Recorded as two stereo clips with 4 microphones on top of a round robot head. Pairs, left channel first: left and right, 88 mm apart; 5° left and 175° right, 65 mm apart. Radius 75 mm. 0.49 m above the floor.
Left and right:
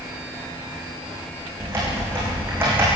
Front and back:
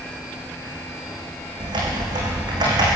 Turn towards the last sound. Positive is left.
turn(degrees=-160)